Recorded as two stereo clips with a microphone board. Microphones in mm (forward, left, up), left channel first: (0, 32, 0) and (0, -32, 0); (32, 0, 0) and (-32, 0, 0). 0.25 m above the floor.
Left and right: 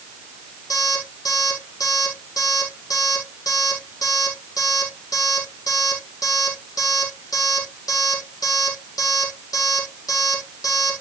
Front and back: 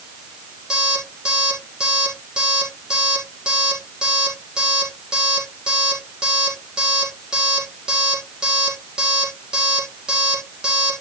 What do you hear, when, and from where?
0.7 s an alarm clock: 105° left, 5.5 m